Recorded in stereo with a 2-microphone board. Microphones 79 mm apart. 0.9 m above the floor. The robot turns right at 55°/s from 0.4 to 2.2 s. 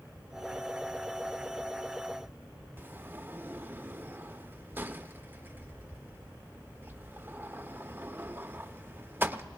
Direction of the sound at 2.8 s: 25° right (ahead or behind).